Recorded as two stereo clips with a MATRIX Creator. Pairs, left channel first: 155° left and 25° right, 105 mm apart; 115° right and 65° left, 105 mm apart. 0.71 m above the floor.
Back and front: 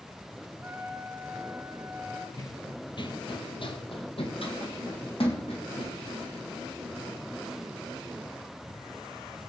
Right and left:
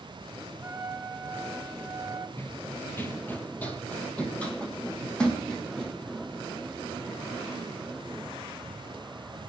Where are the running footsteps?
165° right, 1.0 m; by 6.0 s 165° left, 3 m.